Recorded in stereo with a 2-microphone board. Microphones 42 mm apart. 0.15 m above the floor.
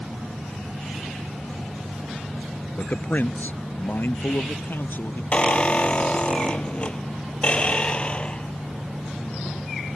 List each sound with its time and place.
2.8 s a man speaking: 45° left (ahead or behind); by 5.2 s 60° left (ahead or behind)
5.3 s a squeak: 30° left (ahead or behind)